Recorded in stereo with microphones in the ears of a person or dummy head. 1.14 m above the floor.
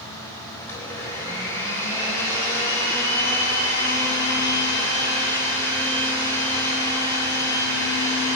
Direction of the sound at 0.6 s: 15° left (ahead or behind).